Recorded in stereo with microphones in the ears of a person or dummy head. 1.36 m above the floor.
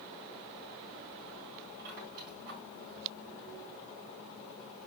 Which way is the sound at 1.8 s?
55° right (ahead or behind).